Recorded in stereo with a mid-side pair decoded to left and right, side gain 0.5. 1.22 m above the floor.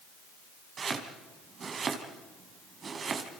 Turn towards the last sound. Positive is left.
turn(degrees=-45)